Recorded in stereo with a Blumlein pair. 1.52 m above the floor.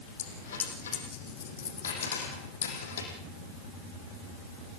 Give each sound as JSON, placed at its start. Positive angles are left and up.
{"t": 0.2, "sound": "a dropped coin", "azimuth_deg": 65, "distance_m": 6.5}